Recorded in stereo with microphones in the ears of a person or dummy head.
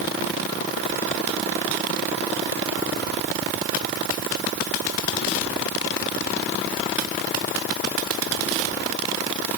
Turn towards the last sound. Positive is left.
No sound to turn to.